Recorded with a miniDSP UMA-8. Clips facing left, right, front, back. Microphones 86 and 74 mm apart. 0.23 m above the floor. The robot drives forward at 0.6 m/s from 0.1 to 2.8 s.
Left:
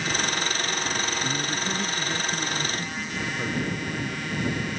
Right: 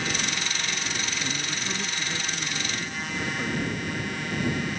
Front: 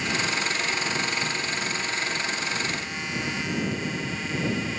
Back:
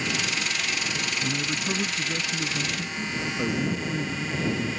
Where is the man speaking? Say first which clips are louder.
Left 4 dB, even; 170° left; by 4.7 s 175° left.